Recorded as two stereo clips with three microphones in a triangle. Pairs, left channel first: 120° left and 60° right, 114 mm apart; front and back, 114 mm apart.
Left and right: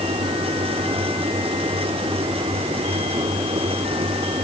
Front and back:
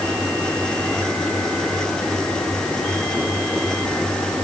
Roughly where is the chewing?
No chewing in this recording.